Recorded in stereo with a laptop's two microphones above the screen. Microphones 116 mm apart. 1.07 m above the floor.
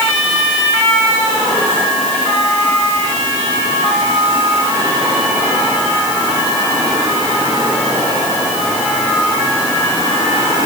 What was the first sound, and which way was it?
Only background noise.